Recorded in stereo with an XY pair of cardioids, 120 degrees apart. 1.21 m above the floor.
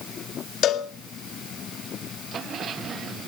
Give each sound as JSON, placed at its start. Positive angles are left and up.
{"t": 0.6, "sound": "a cowbell", "azimuth_deg": 65, "distance_m": 1.6}